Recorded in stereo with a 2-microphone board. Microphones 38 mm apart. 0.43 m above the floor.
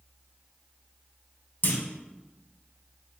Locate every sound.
1.6 s a clunk: 55° left (ahead or behind), 0.6 m